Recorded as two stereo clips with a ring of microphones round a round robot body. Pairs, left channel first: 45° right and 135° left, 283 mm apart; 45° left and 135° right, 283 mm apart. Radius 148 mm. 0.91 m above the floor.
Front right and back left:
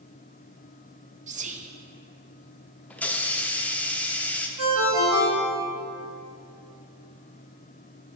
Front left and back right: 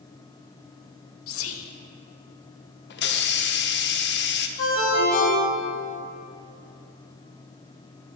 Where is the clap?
No clap in this recording.